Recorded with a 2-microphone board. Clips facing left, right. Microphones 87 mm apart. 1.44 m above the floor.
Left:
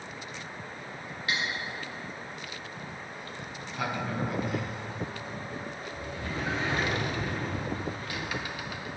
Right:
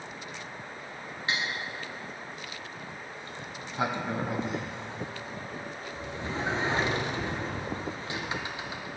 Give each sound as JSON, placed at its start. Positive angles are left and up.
{"t": 1.3, "sound": "cutlery clinking", "side_deg": -30, "distance_m": 1.4}
{"t": 3.2, "sound": "a sliding door", "side_deg": -25, "distance_m": 0.6}